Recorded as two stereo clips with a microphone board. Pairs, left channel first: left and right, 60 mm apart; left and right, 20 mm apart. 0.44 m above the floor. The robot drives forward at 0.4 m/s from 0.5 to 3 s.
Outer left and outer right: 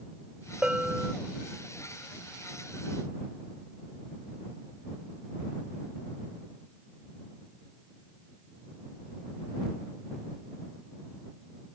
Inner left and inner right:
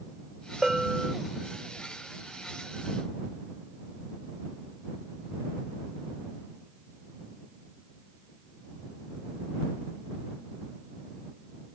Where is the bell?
15° right (ahead or behind).